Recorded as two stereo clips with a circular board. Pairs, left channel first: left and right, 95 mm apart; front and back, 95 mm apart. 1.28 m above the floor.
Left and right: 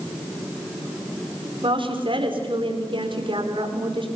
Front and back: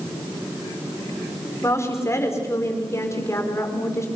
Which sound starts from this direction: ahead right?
A woman speaking, at 1.6 s.